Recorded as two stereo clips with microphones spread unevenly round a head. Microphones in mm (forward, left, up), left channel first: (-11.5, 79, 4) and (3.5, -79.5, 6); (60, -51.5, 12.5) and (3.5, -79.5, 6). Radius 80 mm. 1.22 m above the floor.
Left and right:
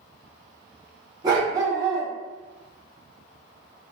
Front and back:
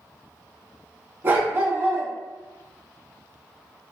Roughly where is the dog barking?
Behind right.